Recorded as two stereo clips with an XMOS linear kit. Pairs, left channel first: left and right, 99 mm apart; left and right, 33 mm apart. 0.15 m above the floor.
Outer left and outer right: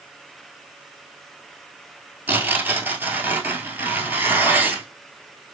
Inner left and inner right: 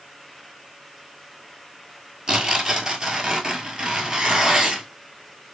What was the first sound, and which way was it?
Tearing paper, 20° right (ahead or behind).